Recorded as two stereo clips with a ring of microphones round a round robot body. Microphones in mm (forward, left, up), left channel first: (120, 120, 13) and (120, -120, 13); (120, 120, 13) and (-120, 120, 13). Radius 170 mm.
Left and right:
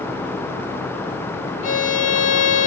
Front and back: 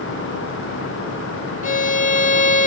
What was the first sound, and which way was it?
A violin, 55° left.